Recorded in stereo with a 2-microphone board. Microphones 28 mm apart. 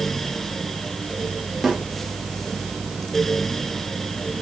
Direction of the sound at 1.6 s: 5° left (ahead or behind).